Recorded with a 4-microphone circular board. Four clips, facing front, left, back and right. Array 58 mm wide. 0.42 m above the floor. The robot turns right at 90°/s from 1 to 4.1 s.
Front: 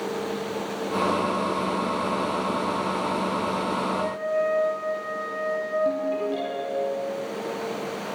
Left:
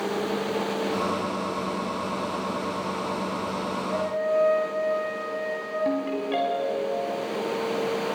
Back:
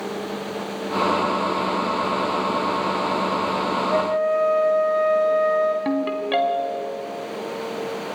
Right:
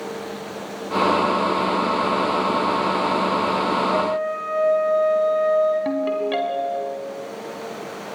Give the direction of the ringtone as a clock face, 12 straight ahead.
5 o'clock.